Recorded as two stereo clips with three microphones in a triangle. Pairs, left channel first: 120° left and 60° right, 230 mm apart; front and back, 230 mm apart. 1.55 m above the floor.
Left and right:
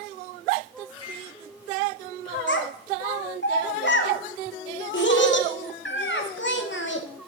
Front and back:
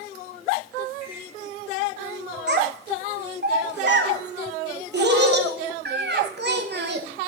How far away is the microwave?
About 3 m.